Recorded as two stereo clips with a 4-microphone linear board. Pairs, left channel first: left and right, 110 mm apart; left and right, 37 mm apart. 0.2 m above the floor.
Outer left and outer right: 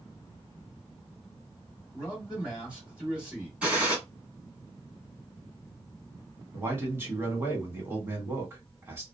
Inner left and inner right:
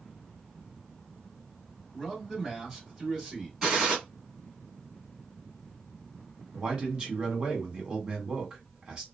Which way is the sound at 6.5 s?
20° right (ahead or behind).